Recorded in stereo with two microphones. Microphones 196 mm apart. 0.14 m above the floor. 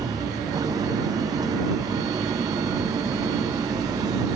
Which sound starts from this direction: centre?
An engine running, at 0.0 s.